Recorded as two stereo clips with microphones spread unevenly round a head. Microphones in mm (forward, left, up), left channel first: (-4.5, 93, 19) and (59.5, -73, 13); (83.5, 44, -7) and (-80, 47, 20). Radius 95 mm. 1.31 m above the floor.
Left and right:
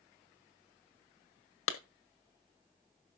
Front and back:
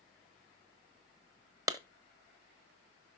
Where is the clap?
110° left, 1.6 m.